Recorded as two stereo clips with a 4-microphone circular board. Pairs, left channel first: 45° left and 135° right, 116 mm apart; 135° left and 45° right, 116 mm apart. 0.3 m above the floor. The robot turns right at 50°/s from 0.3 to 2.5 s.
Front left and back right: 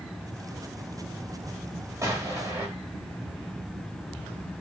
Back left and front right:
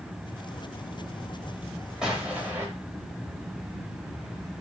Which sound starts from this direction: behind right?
An explosion, at 2.0 s.